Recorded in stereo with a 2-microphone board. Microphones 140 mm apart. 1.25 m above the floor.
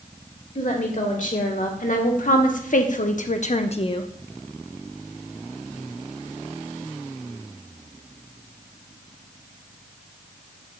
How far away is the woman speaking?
About 2 m.